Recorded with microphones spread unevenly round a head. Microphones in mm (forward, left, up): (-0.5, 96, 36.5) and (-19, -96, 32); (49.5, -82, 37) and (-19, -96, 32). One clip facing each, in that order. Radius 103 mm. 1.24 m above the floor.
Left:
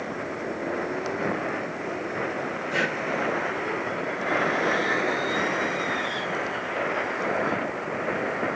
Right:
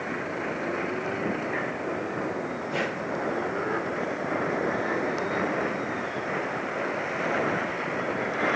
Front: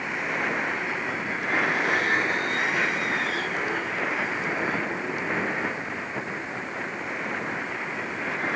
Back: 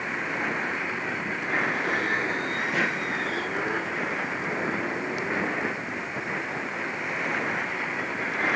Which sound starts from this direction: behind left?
Breathing, at 2.7 s.